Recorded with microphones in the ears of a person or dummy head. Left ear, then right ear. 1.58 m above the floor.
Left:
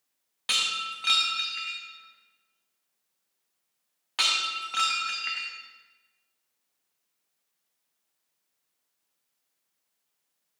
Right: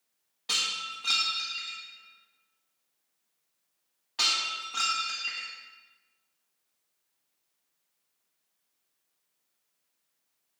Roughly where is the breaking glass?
Left.